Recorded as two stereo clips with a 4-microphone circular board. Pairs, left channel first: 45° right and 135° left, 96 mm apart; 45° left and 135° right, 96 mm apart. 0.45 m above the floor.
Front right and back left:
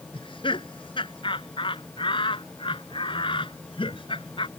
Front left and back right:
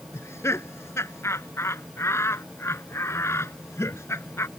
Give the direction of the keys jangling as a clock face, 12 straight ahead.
No keys jangling in this recording.